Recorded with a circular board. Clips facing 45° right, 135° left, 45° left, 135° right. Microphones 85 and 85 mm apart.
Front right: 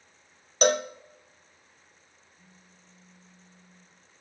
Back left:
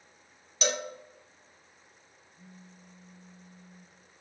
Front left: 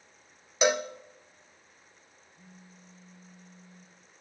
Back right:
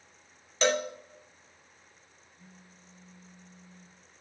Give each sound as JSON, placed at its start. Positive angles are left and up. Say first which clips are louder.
{"t": 0.6, "sound": "a cowbell", "louder": "front right 9 dB, front left 1 dB", "azimuth_deg": -30, "distance_m": 0.7}
{"t": 2.4, "sound": "a phone buzzing", "louder": "back left 8 dB, front left 2 dB", "azimuth_deg": 90, "distance_m": 4.5}